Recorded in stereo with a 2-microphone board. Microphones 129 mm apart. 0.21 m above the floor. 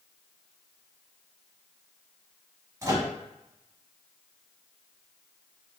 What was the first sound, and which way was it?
A microwave, 25° right (ahead or behind).